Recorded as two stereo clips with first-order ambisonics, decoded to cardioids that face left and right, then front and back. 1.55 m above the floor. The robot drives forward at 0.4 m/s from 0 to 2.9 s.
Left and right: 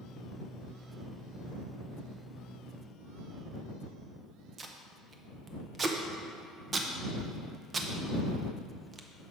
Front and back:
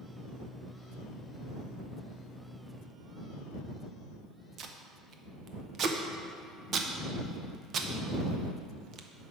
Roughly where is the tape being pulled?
Behind right.